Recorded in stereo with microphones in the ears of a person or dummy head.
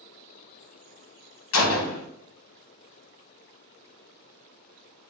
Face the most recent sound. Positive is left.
turn(degrees=70)  # may be behind; listen again after turning